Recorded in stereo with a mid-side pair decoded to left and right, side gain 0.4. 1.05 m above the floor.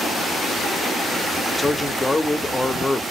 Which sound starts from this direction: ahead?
A man speaking, at 1.6 s.